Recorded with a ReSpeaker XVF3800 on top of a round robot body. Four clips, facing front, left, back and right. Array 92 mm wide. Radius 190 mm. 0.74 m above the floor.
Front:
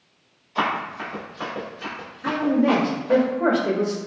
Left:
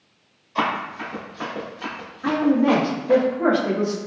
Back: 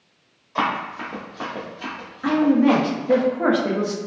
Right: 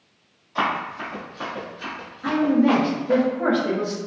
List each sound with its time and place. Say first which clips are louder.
0.6 s running footsteps: even, back 1 dB; straight behind, 1.8 m; by 3.2 s 110° left, 0.8 m
2.2 s a woman speaking: even, back 3 dB; 170° left, 0.9 m